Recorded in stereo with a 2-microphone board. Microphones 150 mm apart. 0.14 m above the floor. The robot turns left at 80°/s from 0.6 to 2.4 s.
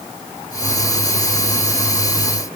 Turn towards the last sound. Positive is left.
No sound to turn to.